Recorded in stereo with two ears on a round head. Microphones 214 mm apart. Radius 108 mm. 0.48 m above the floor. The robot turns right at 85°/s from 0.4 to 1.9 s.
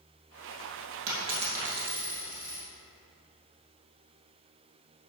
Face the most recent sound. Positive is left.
turn(degrees=-10)